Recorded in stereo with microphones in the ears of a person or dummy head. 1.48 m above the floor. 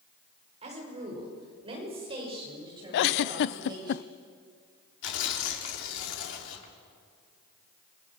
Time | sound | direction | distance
0.6 | a woman speaking | 30° right (ahead or behind) | 5.5 m
2.9 | a giggle | 65° left (ahead or behind) | 0.6 m
5.0 | tearing paper | 70° left (ahead or behind) | 3.5 m